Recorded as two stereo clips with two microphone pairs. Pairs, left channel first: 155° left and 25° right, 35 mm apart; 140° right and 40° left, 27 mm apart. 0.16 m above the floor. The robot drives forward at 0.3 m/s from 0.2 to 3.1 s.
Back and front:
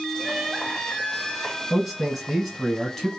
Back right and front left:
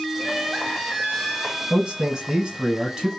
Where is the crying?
100° right, 1.5 m; by 1.6 s 135° right, 1.6 m.